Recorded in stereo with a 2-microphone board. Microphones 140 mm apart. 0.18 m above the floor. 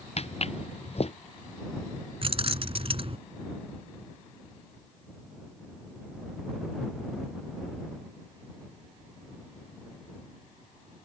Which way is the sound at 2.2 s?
45° right (ahead or behind).